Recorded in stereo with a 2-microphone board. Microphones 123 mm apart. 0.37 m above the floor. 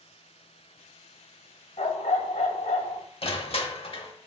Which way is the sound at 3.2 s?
50° left (ahead or behind).